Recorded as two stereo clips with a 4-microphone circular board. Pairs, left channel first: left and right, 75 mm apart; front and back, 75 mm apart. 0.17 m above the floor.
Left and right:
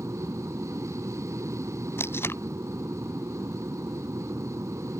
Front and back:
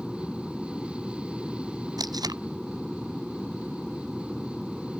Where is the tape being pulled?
150° left.